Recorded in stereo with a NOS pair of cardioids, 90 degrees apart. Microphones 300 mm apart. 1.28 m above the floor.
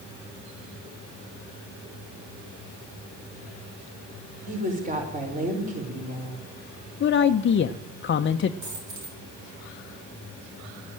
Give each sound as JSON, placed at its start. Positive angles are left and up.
{"t": 4.5, "sound": "a woman speaking", "azimuth_deg": -30, "distance_m": 5.0}
{"t": 7.0, "sound": "a man speaking", "azimuth_deg": 40, "distance_m": 0.7}
{"t": 8.6, "sound": "a dropped coin", "azimuth_deg": -65, "distance_m": 8.0}